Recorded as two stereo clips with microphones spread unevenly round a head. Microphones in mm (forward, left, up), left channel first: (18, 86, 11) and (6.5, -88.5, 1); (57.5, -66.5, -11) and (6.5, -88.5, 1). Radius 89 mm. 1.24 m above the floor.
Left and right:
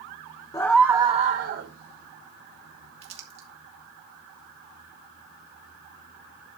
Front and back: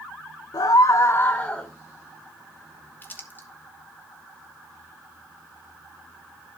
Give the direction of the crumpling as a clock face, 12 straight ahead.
1 o'clock.